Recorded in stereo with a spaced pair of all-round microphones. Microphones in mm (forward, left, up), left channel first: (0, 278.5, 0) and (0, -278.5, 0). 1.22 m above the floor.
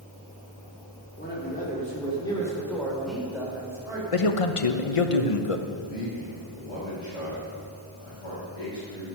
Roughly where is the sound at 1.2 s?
Left.